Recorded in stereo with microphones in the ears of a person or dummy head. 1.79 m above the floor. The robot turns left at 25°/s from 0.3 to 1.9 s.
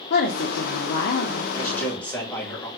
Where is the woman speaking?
65° left (ahead or behind), 0.6 m; by 1.4 s 45° left (ahead or behind), 0.6 m.